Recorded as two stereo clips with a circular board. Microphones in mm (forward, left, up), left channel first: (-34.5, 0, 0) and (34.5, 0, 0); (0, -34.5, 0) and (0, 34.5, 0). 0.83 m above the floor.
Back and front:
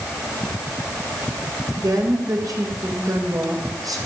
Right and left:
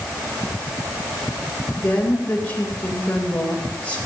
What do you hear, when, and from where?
1.8 s a woman speaking: 20° right, 3 m